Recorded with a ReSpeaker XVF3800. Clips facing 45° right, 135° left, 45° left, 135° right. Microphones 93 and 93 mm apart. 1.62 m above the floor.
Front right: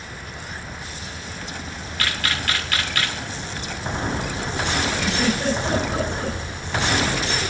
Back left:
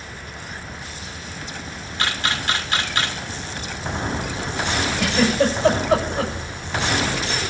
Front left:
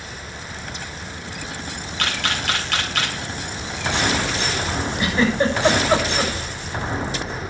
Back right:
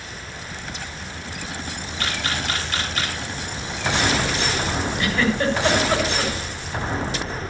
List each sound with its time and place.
2.0 s a camera shutter: 70° left, 2.5 m
5.0 s a giggle: 105° left, 7.5 m